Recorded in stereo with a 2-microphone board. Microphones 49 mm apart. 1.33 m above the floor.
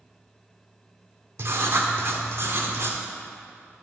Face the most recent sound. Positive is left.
turn(degrees=-55)  # may be behind; listen again after turning